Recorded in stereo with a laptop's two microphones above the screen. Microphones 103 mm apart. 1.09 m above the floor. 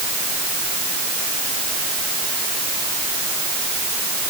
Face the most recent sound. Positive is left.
No sound to turn to.